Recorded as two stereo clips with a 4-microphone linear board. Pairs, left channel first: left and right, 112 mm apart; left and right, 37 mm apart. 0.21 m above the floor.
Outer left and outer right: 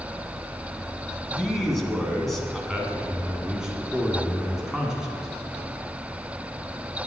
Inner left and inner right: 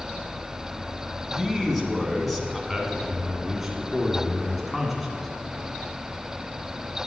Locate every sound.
1.3 s a man speaking: 5° left (ahead or behind), 2.5 m
2.7 s a man speaking: 5° right (ahead or behind), 2.5 m